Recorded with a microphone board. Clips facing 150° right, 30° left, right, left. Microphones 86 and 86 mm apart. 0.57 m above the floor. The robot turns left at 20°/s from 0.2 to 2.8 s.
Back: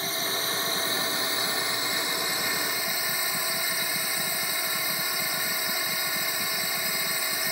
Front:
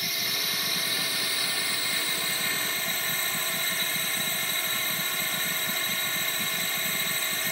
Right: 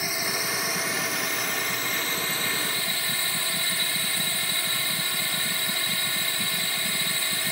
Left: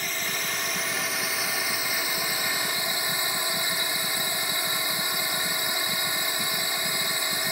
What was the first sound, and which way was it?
A drone, 165° right.